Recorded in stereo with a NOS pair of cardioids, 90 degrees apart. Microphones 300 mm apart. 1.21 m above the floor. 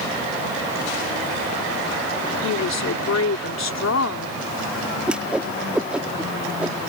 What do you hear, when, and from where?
2.4 s a woman speaking: 60° left
5.1 s a whoosh: 5° right